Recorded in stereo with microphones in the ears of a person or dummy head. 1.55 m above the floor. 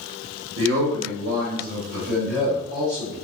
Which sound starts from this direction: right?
A man speaking, at 0.6 s.